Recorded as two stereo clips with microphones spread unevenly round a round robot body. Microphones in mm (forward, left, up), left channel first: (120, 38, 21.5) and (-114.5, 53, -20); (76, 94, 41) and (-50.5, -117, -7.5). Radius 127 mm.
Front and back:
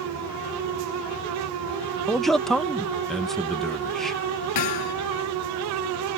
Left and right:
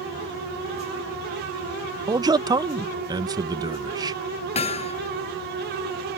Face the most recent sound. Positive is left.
turn(degrees=-5)